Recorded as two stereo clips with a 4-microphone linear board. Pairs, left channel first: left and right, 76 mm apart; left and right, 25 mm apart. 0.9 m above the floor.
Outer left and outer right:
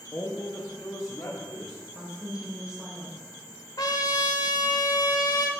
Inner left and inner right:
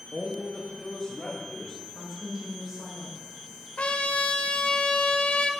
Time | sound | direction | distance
0.1 | a man speaking | 30° left (ahead or behind) | 1.3 m
1.9 | a woman speaking | 10° right (ahead or behind) | 4 m
3.8 | a trumpet | 60° left (ahead or behind) | 0.9 m